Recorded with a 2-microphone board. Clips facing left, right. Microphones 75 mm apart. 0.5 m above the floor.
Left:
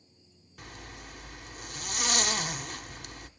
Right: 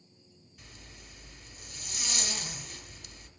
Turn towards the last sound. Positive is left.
turn(degrees=65)  # may be behind; listen again after turning